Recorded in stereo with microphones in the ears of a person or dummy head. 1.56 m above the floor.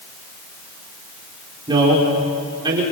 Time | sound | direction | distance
1.7 | a man speaking | 20° right (ahead or behind) | 6 m